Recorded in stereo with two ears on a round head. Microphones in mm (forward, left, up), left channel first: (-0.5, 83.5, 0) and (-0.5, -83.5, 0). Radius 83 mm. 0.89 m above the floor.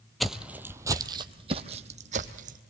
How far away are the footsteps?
About 1.1 m.